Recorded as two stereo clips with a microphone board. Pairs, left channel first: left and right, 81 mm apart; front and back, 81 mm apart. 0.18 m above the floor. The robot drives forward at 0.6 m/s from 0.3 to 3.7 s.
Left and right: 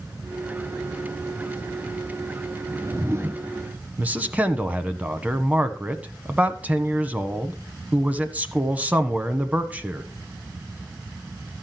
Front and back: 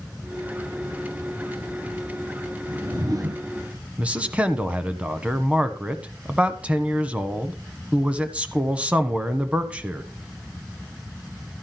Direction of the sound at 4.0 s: 130° right.